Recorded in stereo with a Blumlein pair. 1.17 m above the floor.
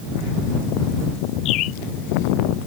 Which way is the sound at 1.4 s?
35° left.